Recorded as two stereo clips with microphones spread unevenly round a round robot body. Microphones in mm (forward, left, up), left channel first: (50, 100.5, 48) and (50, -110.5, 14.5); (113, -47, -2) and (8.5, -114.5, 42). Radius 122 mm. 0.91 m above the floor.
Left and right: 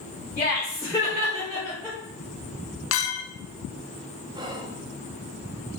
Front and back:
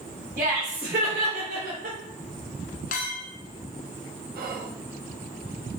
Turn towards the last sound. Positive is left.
turn(degrees=-160)